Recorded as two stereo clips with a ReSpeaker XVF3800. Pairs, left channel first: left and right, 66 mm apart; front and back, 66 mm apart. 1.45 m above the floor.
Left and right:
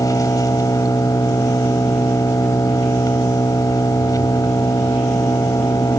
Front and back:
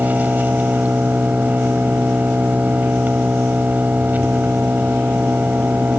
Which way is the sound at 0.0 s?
115° left.